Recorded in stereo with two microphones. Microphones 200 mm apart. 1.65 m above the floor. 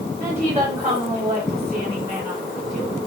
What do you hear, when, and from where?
0.2 s a woman speaking: 15° right (ahead or behind), 5.5 m